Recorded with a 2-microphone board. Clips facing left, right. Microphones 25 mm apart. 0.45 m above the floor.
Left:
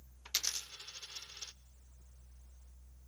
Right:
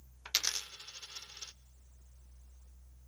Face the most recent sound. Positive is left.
turn(degrees=-35)  # may be behind; listen again after turning